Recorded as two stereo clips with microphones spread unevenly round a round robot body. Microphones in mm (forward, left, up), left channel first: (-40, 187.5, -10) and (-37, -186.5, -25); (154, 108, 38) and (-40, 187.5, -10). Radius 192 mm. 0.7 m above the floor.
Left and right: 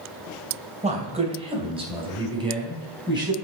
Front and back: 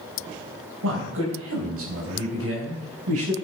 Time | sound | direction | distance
0.8 | a man speaking | 160° right | 2.5 m